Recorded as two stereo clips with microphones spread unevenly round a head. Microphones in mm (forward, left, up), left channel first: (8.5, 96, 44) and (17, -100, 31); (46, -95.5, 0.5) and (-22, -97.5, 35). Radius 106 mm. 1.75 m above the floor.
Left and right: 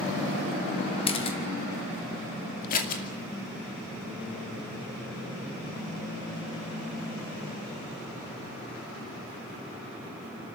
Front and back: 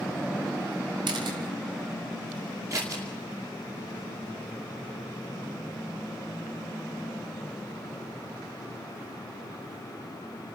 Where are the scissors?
140° left, 2.5 m.